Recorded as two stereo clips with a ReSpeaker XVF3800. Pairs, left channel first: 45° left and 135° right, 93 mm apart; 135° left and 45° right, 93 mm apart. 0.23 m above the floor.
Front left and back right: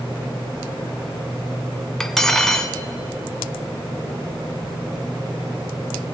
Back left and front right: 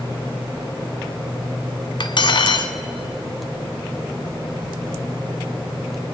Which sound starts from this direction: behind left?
Cutlery clinking, at 2.0 s.